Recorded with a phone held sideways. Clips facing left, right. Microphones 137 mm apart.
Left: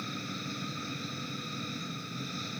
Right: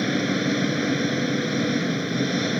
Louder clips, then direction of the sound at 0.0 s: Right 17 dB; 80° right.